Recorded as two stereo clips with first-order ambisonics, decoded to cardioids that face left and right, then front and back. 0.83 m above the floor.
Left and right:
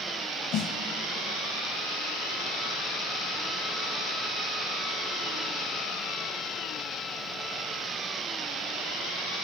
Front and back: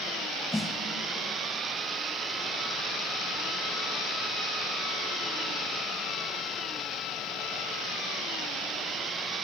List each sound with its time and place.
0.5 s a snare drum: 80° left, 0.8 m